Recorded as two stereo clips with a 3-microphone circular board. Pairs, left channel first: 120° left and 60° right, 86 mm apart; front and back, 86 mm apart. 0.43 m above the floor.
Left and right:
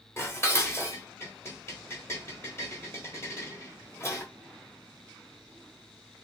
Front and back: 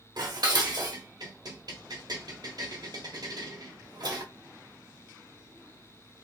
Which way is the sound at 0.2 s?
170° left.